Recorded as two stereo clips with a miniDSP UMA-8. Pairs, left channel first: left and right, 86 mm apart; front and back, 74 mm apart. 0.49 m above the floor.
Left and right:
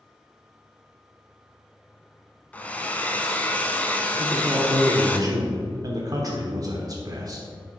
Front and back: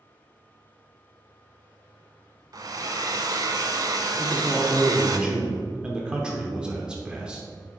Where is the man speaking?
105° right, 0.9 m.